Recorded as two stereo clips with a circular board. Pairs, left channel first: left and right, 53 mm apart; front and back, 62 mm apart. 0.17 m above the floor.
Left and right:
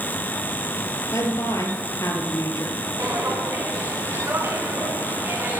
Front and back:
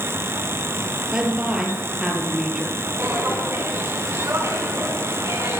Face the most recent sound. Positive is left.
turn(degrees=-140)